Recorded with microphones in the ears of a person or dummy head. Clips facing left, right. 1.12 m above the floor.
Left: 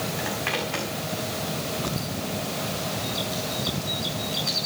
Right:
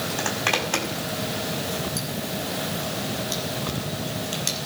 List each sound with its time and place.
0.2 s a zipper: 55° right (ahead or behind), 5 m